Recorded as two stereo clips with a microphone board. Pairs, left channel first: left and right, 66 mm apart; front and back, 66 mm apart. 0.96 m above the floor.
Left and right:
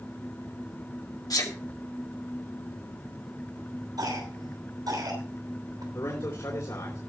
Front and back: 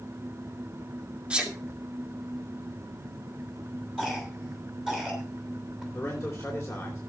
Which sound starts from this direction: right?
A cough, at 4.0 s.